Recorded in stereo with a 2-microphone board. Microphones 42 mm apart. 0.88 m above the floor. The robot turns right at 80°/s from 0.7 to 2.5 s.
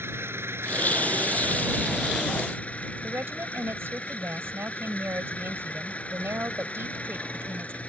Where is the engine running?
110° right; by 7.9 s 30° left.